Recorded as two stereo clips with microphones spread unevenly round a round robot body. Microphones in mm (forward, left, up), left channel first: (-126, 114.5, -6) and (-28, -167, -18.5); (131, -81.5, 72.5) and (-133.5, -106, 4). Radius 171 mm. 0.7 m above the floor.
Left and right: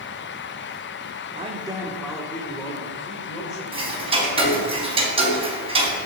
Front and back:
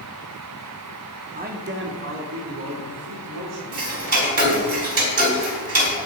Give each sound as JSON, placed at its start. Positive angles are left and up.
{"t": 1.3, "sound": "a man speaking", "azimuth_deg": -130, "distance_m": 2.0}
{"t": 3.7, "sound": "ticking", "azimuth_deg": -145, "distance_m": 4.0}